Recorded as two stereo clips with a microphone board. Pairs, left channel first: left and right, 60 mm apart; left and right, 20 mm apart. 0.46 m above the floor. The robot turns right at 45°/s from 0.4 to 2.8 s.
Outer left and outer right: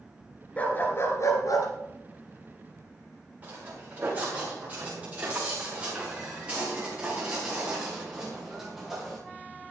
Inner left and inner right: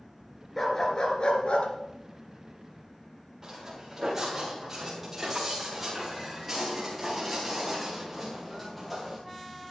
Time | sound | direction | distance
0.6 | a dog barking | 20° left | 2.5 m
3.4 | footsteps | 30° right (ahead or behind) | 8.5 m